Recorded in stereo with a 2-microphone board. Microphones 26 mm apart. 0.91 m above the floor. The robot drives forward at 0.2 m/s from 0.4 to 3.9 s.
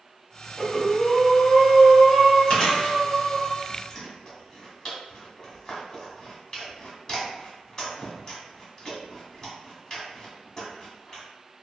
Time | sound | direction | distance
0.6 | breathing | 55° left (ahead or behind) | 1.3 m
2.5 | chewing | 40° left (ahead or behind) | 1.0 m